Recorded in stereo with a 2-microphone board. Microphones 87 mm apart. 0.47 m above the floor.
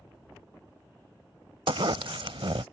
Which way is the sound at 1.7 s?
75° right (ahead or behind).